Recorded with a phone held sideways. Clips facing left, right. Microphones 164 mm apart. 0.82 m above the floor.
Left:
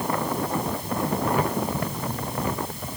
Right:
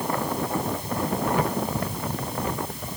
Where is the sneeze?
I don't hear a sneeze.